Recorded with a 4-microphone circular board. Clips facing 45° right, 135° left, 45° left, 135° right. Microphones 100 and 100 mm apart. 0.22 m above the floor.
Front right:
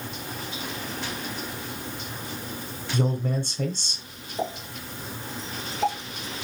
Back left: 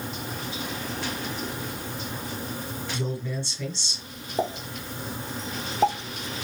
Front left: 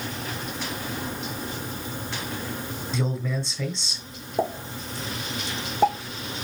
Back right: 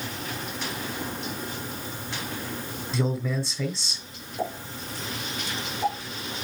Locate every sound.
2.9 s a man speaking: 45° right, 2.5 m
4.4 s a pop: 85° left, 3 m